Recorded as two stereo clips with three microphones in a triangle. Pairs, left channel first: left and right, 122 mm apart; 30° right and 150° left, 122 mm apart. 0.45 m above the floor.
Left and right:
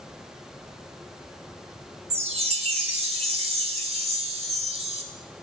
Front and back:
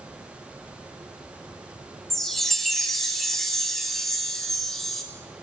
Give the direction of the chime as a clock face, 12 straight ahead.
4 o'clock.